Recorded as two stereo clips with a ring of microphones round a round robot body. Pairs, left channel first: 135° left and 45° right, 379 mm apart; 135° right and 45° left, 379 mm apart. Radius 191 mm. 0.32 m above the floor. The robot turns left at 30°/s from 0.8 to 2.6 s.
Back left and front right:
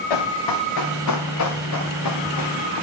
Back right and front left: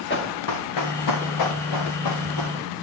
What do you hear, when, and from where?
0.1 s running footsteps: 160° left, 3 m; by 2.6 s straight behind, 3 m